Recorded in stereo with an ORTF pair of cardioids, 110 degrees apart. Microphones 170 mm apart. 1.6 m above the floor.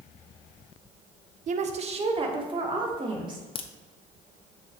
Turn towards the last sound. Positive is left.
turn(degrees=35)